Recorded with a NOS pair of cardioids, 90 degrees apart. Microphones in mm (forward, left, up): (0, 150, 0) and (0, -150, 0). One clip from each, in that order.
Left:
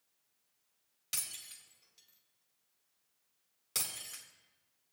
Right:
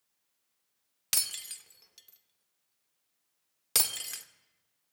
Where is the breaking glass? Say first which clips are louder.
Right 9 dB; 60° right, 0.8 m.